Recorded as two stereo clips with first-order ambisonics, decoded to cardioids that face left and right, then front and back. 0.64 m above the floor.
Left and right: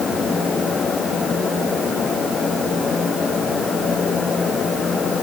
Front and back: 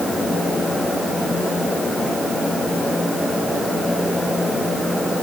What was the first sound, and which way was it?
Only background noise.